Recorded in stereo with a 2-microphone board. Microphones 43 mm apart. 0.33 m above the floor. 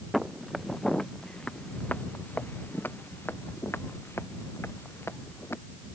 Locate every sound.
0.1 s footsteps: centre (ahead or behind); by 5.6 s 90° left